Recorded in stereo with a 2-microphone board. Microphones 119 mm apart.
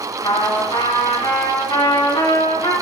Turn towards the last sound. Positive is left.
turn(degrees=30)  # may be behind; listen again after turning